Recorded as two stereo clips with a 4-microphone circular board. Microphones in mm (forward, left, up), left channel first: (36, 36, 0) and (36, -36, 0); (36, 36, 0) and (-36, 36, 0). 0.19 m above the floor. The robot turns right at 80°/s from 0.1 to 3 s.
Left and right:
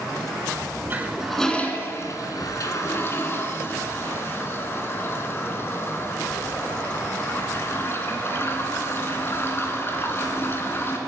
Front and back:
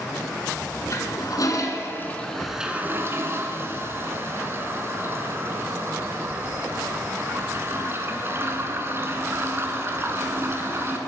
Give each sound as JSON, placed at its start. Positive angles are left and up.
{"t": 0.9, "sound": "a toilet flushing", "azimuth_deg": -35, "distance_m": 1.8}